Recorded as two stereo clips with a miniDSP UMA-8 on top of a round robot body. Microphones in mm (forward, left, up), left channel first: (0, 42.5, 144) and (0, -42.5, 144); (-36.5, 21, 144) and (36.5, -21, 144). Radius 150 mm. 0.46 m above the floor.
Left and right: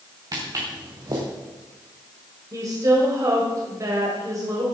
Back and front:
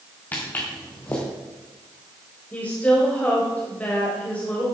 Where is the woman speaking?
140° right, 3 m.